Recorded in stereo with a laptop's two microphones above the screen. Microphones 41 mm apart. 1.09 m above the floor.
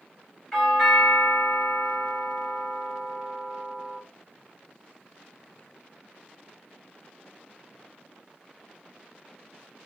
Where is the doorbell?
20° left (ahead or behind), 3 m.